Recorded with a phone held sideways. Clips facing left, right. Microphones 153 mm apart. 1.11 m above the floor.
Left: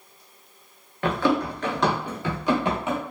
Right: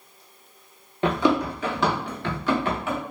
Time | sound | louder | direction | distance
1.0 | running footsteps | right 1 dB | 25° right (ahead or behind) | 1.1 m